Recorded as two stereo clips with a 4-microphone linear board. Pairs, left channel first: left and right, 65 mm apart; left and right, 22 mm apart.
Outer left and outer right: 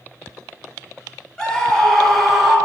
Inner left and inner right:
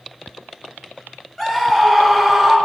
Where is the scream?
10° left (ahead or behind), 1.9 m; by 2.6 s 5° right (ahead or behind), 1.5 m.